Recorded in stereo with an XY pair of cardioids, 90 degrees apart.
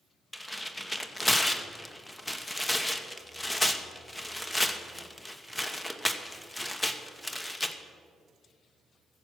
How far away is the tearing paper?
About 1.0 m.